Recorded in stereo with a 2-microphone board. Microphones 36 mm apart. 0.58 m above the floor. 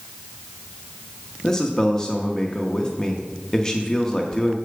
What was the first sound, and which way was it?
A man speaking, 20° left (ahead or behind).